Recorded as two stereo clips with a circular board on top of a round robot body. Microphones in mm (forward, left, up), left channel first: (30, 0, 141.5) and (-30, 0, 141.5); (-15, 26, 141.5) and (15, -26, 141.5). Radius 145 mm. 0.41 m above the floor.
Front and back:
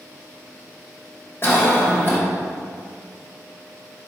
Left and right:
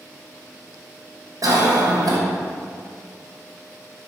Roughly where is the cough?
Ahead right.